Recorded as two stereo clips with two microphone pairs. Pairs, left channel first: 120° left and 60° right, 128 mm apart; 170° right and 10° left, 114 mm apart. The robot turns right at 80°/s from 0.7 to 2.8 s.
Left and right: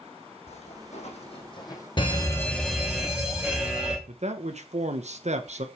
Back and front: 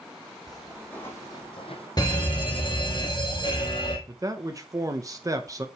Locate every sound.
0.5 s footsteps: 100° left, 3 m; by 1.9 s straight behind, 2 m
2.0 s a fire alarm: 150° left, 2 m; by 4.0 s 145° right, 2 m
4.1 s a man speaking: 50° right, 0.9 m